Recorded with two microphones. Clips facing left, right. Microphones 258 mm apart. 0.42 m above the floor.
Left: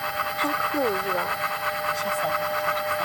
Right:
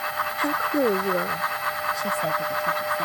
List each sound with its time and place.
0.4 s a woman speaking: 5° right (ahead or behind); by 3.0 s 25° right (ahead or behind)